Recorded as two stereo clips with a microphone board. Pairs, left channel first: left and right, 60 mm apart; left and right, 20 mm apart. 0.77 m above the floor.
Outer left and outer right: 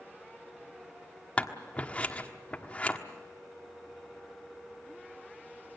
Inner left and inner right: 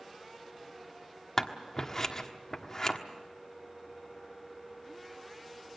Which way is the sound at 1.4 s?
25° left (ahead or behind).